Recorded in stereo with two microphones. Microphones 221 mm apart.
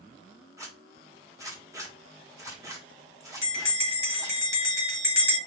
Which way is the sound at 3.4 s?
70° right (ahead or behind).